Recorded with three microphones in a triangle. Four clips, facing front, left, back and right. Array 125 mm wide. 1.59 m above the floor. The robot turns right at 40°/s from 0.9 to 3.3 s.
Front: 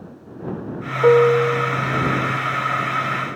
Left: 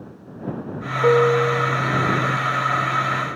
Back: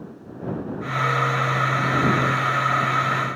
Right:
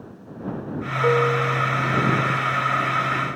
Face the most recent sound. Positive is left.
turn(degrees=105)